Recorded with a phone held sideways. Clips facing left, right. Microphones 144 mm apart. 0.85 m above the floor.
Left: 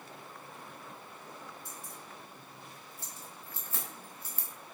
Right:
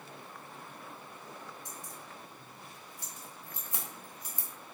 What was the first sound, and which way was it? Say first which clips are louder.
Keys jangling: right 1 dB; 20° right (ahead or behind).